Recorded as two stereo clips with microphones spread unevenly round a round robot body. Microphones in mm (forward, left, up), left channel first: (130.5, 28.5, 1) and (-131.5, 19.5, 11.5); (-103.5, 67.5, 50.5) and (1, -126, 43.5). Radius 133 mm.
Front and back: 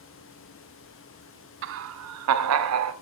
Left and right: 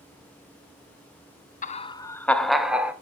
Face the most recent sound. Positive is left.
turn(degrees=-145)